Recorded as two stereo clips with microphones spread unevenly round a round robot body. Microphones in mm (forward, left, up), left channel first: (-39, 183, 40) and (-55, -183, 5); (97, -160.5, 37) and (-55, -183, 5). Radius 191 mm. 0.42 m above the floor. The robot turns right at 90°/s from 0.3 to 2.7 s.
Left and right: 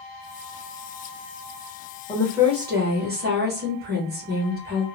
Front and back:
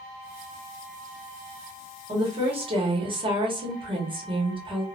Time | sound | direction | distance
2.1 | a woman speaking | 160° left | 1.3 m